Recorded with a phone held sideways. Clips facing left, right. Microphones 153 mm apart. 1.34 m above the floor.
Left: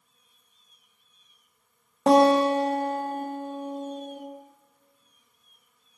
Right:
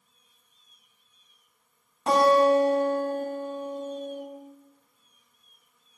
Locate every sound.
2.1 s a guitar: 90° left, 0.6 m